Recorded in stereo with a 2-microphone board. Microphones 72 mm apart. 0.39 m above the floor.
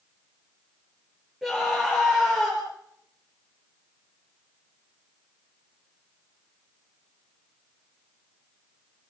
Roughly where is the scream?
Centre.